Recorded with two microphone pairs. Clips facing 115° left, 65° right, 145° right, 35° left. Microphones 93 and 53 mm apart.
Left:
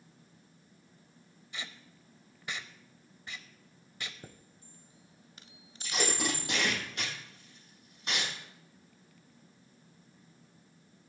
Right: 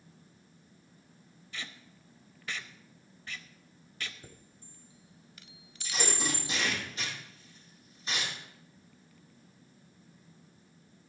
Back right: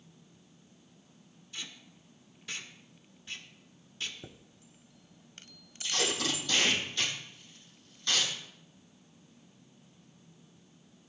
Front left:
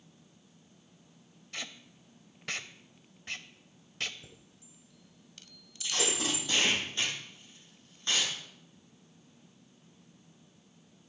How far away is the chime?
About 0.5 m.